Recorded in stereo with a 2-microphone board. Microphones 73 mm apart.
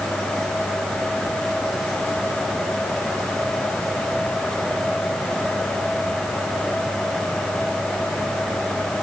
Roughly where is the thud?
No thud in this recording.